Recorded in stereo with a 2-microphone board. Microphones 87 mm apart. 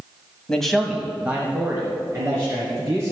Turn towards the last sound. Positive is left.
turn(degrees=-30)  # may be behind; listen again after turning